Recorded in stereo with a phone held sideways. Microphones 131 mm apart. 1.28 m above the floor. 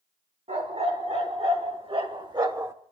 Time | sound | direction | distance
0.5 | a dog barking | 50° right (ahead or behind) | 4 m